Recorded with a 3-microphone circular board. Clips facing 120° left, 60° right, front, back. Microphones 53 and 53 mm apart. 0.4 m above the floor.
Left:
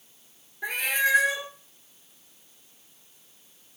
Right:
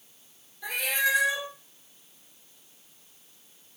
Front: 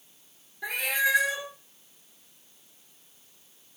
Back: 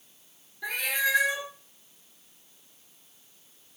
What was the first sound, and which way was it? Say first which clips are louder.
A cat meowing: left 2 dB, front 2 dB; 75° left.